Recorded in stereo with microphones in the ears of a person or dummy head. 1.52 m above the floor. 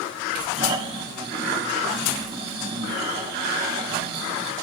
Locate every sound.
0.6 s snoring: 30° right (ahead or behind), 2.5 m